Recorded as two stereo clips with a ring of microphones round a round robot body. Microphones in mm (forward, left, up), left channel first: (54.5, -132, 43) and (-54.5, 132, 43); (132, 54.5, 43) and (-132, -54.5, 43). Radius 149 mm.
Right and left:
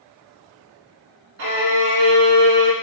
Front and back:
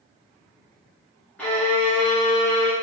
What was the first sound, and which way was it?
A violin, 110° left.